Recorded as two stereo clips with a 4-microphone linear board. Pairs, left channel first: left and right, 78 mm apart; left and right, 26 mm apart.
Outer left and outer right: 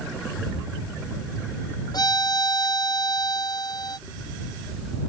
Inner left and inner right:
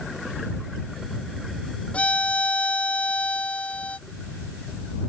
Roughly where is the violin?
Left.